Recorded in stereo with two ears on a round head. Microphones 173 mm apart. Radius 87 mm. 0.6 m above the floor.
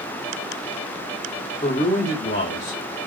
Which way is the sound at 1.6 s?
25° left (ahead or behind).